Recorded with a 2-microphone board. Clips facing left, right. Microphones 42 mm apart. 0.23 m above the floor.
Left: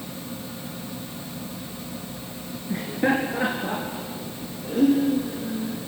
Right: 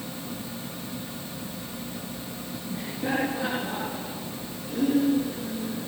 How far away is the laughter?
About 3 m.